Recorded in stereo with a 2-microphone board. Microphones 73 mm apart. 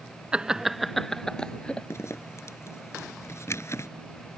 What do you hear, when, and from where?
0.3 s laughter: 15° right (ahead or behind); by 1.9 s 15° left (ahead or behind)
1.9 s a zipper: 40° left (ahead or behind)